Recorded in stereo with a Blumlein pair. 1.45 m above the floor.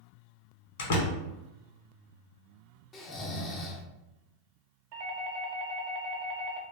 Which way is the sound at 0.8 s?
55° left.